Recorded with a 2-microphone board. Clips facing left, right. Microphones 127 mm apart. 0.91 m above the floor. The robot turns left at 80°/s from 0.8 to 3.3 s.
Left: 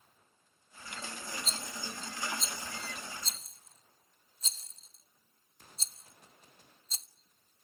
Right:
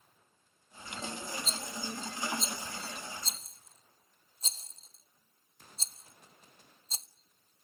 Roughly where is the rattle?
Left.